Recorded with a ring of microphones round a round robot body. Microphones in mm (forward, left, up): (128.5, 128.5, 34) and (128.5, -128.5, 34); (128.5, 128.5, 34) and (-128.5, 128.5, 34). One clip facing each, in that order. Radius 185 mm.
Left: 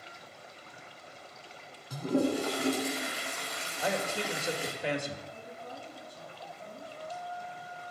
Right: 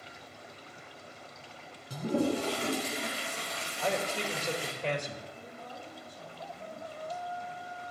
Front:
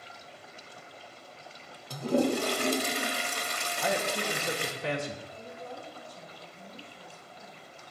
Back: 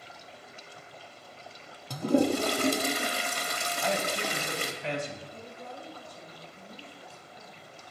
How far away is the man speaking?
About 1.4 m.